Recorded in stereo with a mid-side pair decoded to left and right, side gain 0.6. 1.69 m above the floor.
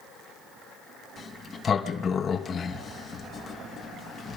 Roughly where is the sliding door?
Ahead left.